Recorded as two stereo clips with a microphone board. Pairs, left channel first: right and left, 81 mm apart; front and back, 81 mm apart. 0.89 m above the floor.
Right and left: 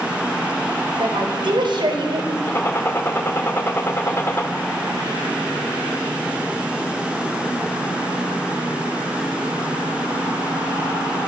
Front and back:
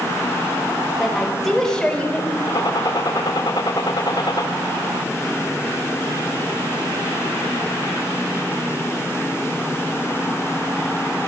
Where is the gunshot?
30° right, 2.5 m.